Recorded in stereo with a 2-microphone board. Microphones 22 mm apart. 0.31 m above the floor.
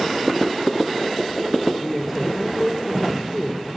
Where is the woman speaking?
10° left (ahead or behind), 8 m.